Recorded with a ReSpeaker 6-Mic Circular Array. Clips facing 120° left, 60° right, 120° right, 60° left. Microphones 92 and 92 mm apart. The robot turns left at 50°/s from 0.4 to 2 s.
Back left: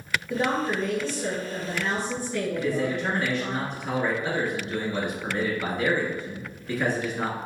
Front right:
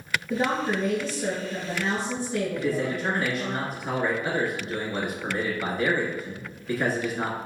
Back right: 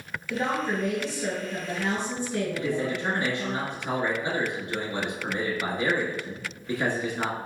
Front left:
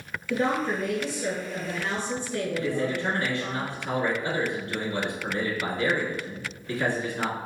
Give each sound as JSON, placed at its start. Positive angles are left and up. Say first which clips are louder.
{"t": 0.3, "sound": "a woman speaking", "louder": "even, front left 2 dB", "azimuth_deg": -30, "distance_m": 2.0}
{"t": 2.6, "sound": "a man speaking", "louder": "back left 1 dB, front left 1 dB", "azimuth_deg": -135, "distance_m": 1.1}